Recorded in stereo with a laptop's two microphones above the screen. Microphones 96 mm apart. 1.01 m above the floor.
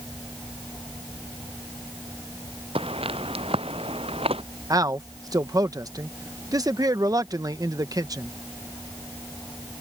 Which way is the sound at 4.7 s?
40° right (ahead or behind).